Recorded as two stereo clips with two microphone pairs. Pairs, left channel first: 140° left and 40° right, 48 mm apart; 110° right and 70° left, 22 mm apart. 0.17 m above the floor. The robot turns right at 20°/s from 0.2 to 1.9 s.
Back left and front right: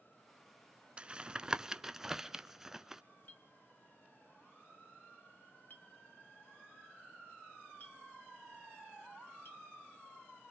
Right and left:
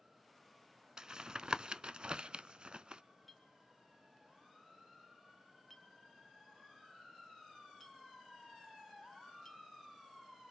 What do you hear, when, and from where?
1.0 s tapping: 15° left, 0.5 m; by 3.0 s 35° left, 0.5 m
3.3 s a clink: 165° left, 1.4 m